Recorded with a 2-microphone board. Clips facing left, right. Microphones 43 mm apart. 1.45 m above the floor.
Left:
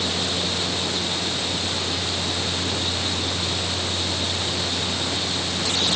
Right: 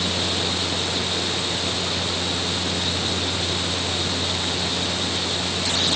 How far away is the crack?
I don't hear a crack.